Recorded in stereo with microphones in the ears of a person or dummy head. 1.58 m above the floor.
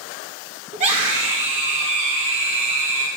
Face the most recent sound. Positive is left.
turn(degrees=-35)  # may be behind; listen again after turning